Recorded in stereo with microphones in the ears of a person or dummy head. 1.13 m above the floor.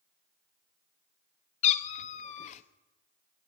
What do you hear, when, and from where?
1.6 s a cat meowing: 40° left (ahead or behind), 0.7 m